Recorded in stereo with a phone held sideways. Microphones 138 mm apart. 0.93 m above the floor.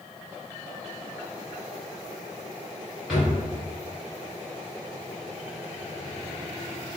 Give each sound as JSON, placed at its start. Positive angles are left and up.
{"t": 3.1, "sound": "a drawer", "side_deg": 0, "distance_m": 2.0}